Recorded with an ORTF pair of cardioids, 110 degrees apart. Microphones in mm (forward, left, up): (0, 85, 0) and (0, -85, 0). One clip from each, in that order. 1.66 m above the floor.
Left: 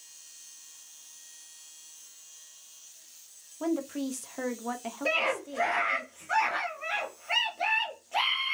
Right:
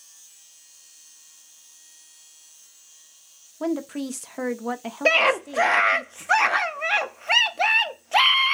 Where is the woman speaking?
25° right, 0.8 m.